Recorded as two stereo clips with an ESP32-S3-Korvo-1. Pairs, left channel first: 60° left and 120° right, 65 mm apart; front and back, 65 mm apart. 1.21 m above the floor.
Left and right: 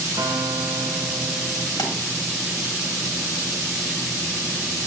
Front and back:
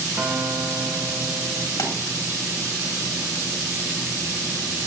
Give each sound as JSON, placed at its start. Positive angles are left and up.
{"t": 0.2, "sound": "a guitar", "azimuth_deg": -130, "distance_m": 2.0}
{"t": 1.8, "sound": "a pop", "azimuth_deg": 45, "distance_m": 3.0}